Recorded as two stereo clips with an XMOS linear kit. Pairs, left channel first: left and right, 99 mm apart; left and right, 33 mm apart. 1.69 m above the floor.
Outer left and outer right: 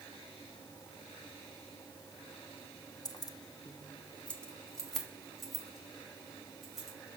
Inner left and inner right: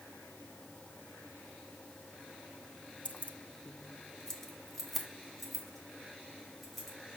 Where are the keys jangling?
40° left (ahead or behind), 0.7 m; by 7.0 s 5° right (ahead or behind), 3.5 m.